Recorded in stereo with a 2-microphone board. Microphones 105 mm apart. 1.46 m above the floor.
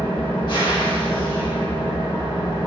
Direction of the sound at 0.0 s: 45° left (ahead or behind).